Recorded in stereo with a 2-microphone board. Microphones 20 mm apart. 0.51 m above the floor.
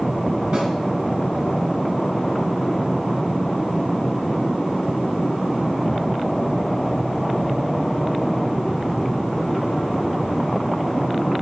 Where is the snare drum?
50° right (ahead or behind), 1.9 m.